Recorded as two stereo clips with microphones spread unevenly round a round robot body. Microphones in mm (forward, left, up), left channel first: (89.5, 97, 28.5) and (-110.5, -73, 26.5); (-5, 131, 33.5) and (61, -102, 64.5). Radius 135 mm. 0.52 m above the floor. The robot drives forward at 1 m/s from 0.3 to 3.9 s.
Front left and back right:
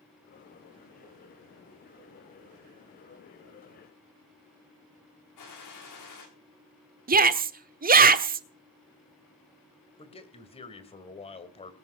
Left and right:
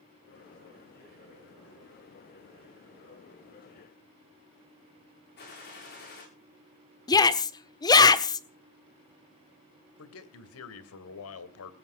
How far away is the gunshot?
About 9.5 m.